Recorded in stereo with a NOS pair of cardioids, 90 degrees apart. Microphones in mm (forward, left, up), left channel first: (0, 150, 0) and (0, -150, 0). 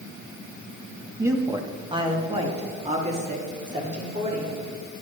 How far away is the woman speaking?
About 1.3 m.